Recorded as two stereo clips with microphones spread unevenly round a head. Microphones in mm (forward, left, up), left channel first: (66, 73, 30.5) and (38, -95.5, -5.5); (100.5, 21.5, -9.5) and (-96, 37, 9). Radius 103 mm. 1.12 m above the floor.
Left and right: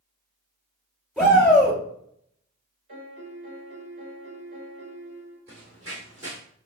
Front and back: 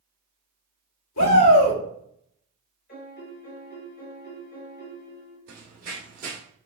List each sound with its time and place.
1.2 s a shout: 10° right, 2.5 m
2.9 s a piano: 45° right, 2.5 m
5.5 s running footsteps: 160° right, 1.7 m